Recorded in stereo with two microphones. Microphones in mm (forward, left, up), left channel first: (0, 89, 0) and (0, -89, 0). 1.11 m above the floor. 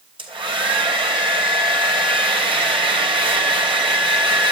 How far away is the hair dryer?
About 3 m.